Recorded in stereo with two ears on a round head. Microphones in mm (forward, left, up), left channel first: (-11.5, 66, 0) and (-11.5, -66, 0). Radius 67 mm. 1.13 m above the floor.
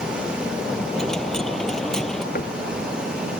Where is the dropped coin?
5° left (ahead or behind).